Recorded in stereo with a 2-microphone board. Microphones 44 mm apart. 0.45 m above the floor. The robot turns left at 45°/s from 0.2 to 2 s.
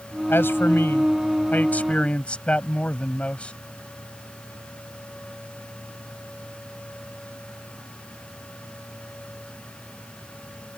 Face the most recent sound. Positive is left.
turn(degrees=30)